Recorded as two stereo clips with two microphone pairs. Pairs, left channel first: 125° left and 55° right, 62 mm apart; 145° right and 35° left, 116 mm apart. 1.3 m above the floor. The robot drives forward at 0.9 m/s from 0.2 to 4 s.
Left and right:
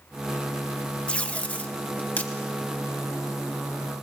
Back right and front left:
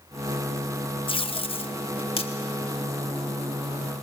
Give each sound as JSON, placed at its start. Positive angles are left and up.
{"t": 1.1, "sound": "tape being pulled", "azimuth_deg": -170, "distance_m": 0.6}